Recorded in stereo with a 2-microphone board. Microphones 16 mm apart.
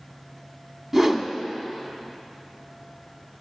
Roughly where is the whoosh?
Right.